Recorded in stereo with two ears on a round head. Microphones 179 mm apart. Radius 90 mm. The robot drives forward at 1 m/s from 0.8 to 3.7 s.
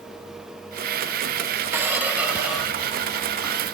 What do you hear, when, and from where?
1.7 s a squeak: 10° right (ahead or behind), 0.7 m; by 3.5 s 5° right (ahead or behind), 2.5 m